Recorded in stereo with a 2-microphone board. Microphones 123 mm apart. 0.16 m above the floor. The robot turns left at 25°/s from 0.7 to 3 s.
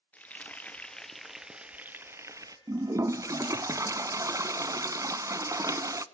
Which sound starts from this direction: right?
A toilet flushing, at 2.7 s.